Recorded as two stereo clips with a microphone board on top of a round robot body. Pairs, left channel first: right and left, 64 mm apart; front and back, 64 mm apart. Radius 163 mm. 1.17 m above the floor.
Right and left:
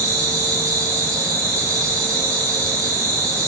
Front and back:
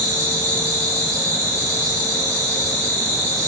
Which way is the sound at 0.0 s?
130° left.